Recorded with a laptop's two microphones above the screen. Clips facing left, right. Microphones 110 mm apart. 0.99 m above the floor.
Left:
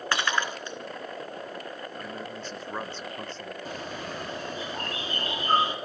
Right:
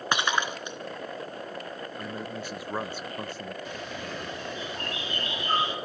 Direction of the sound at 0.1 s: 20° right (ahead or behind).